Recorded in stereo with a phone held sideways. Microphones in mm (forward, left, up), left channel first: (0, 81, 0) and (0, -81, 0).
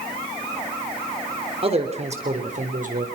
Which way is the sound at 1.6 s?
35° right (ahead or behind).